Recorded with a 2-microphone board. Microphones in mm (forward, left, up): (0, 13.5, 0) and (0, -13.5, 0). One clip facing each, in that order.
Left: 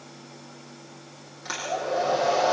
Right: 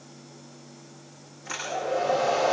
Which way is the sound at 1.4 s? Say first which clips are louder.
Left 1 dB; 60° left (ahead or behind).